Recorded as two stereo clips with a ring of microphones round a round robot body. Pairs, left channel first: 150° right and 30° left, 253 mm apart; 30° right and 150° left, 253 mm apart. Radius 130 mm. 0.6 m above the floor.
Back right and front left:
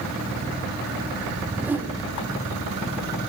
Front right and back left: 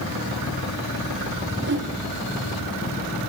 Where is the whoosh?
110° left, 2.0 m.